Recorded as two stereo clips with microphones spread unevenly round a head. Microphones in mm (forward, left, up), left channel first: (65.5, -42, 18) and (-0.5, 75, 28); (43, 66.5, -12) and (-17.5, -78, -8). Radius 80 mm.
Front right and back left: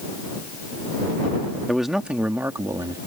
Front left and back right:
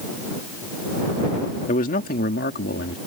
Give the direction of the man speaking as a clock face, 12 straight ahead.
11 o'clock.